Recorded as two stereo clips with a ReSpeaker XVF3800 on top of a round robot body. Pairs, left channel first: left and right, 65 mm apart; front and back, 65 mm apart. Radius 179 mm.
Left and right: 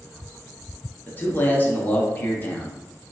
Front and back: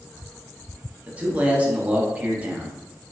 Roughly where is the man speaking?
Behind left.